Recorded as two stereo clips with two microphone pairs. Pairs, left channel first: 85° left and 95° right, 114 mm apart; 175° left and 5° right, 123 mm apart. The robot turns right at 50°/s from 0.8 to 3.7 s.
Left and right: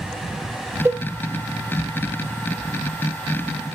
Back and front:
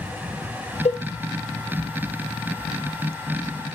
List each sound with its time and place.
0.8 s a cowbell: 160° right, 1.0 m; by 1.0 s 155° right, 1.0 m